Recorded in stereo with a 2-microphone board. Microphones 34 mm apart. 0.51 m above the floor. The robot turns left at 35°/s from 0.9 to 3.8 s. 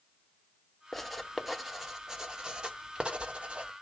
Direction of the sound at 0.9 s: 5° left (ahead or behind).